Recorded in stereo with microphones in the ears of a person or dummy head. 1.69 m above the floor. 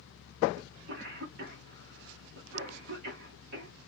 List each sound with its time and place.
0.6 s a cough: 55° right (ahead or behind), 1.3 m